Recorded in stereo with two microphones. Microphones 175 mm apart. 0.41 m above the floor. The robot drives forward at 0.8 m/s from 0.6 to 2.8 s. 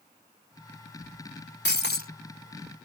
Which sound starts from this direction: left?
Breaking glass, at 1.6 s.